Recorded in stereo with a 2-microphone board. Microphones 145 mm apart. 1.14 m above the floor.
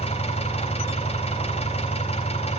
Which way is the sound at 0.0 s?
45° left (ahead or behind).